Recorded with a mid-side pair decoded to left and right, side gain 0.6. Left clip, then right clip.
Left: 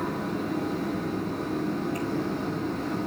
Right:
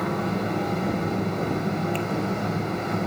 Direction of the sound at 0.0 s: 70° right.